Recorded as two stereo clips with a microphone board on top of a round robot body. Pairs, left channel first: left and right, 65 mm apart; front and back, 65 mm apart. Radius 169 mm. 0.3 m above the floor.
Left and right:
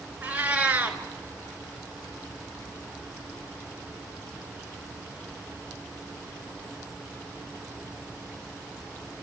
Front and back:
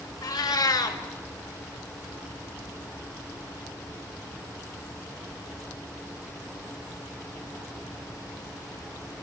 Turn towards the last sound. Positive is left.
turn(degrees=-25)